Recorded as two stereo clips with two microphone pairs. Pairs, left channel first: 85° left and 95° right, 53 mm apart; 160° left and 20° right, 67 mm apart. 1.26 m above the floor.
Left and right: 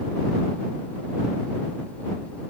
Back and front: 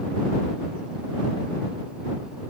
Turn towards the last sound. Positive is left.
No sound to turn to.